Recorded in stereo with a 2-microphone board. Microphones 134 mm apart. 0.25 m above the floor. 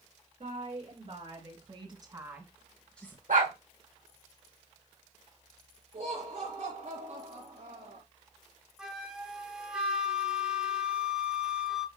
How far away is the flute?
About 1.1 m.